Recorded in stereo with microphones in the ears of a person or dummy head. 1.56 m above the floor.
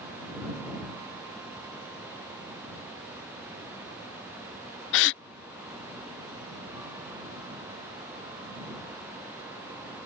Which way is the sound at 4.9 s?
55° left (ahead or behind).